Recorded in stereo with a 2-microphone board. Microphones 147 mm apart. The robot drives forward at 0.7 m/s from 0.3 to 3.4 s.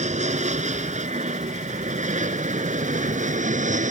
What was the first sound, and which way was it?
An aircraft, 55° right (ahead or behind).